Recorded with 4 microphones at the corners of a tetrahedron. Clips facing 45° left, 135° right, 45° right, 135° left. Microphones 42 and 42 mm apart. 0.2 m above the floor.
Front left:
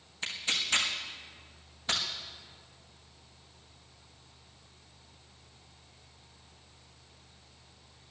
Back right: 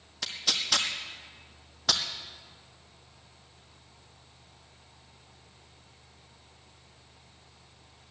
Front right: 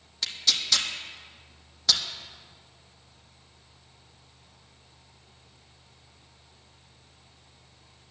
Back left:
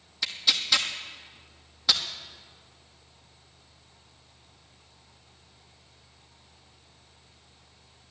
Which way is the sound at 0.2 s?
145° right.